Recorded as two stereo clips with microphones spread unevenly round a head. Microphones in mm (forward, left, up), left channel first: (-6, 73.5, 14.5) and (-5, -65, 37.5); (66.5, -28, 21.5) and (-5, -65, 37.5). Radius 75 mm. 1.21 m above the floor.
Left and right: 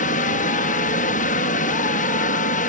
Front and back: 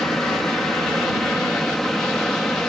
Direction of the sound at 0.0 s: 115° left.